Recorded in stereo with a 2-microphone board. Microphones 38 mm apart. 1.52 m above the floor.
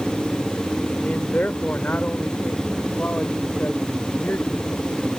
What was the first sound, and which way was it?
A man speaking, 50° left (ahead or behind).